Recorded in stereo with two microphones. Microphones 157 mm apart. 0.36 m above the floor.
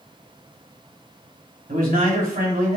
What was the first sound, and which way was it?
A man speaking, 65° right (ahead or behind).